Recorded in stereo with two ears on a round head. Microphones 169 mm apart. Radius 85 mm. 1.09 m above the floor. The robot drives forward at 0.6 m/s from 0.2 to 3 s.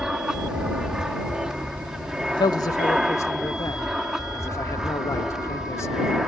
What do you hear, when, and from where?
0.0 s an aircraft: 5° right (ahead or behind)
2.3 s a man speaking: 25° left (ahead or behind); by 6.2 s 15° left (ahead or behind)